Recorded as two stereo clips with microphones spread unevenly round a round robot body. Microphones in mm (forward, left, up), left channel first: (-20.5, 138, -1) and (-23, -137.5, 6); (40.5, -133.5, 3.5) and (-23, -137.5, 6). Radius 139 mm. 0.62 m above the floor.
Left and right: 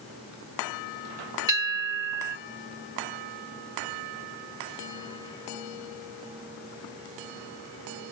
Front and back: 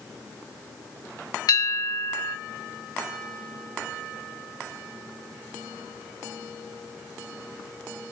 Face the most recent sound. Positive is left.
turn(degrees=-10)